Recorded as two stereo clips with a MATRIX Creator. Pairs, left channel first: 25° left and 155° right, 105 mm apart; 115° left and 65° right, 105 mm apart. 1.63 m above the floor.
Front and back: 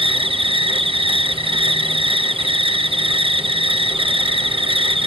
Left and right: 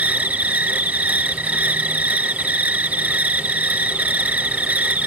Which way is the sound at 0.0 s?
140° right.